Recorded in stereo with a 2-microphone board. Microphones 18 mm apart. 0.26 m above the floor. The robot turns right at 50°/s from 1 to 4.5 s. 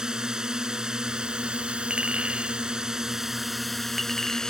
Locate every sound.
0.0 s a drone: 130° right; by 4.5 s 45° left
1.9 s a clink: 70° right (ahead or behind); by 4.5 s 25° left (ahead or behind)